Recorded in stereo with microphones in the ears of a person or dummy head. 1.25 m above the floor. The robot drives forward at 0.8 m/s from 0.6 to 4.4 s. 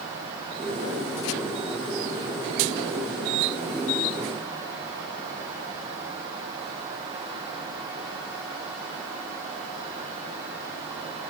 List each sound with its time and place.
Only background noise.